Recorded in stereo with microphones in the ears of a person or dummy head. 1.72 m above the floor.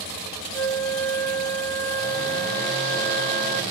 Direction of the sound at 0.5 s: 70° left (ahead or behind).